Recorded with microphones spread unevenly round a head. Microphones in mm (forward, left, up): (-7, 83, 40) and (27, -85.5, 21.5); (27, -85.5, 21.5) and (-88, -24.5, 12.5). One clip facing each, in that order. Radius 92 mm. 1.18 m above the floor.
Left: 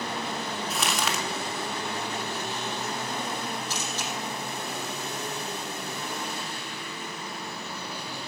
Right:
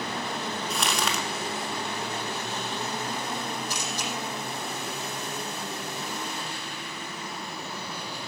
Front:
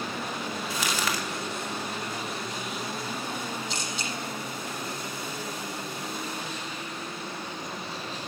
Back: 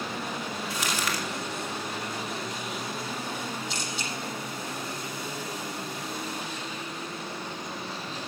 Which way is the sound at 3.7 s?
Straight ahead.